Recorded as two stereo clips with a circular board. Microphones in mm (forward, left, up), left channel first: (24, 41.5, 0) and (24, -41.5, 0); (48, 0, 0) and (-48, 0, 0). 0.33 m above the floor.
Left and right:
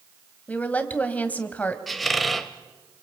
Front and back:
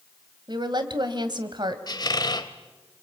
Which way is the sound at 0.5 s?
160° left.